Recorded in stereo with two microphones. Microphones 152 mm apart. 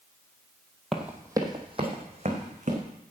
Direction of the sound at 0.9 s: Centre (ahead or behind).